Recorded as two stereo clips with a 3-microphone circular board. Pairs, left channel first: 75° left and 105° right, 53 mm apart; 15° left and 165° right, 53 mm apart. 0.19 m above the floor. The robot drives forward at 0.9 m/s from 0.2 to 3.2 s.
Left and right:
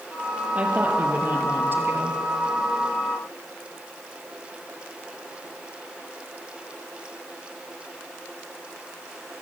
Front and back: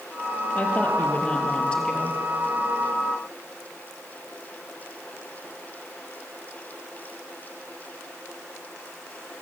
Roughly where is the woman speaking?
Ahead right.